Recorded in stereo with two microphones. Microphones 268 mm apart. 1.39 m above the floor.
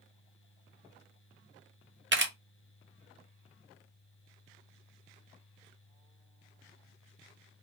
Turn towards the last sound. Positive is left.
turn(degrees=-45)  # may be behind; listen again after turning